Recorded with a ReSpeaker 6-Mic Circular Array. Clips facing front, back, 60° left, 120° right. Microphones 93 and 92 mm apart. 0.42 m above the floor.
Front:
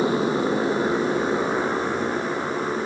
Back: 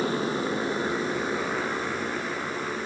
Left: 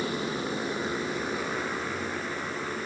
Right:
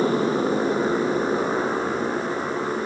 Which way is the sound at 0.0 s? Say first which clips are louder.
Front 5 dB, right 10 dB; 70° right.